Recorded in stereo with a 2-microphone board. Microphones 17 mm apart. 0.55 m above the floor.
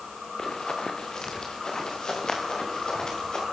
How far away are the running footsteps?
About 3 m.